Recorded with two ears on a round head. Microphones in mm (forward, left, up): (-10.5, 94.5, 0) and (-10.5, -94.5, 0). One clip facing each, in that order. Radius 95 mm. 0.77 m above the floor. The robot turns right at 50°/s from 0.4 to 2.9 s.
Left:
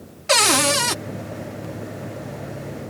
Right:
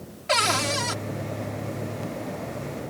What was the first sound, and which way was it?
A cupboard door, 55° left (ahead or behind).